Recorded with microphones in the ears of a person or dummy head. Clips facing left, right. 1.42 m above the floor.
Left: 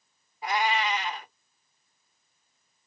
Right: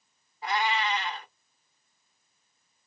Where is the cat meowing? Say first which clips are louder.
Left 1 dB; 20° left (ahead or behind), 1.4 m.